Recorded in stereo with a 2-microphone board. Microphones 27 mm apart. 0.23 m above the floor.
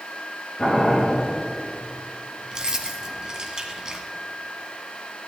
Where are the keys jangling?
30° right (ahead or behind), 1.5 m.